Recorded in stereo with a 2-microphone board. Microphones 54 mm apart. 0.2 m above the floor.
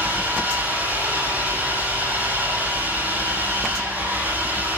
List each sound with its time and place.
0.0 s an engine running: 35° right (ahead or behind), 9 m